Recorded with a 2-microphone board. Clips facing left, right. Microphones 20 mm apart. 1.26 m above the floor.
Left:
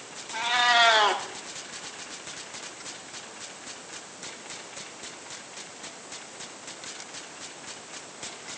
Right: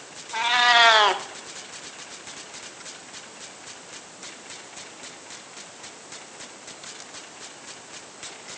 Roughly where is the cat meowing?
Right.